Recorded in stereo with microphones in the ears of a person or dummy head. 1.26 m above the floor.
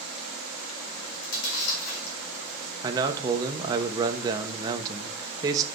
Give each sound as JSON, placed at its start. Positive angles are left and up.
{"t": 0.9, "sound": "chewing", "side_deg": 75, "distance_m": 5.0}
{"t": 2.8, "sound": "a man speaking", "side_deg": -20, "distance_m": 1.2}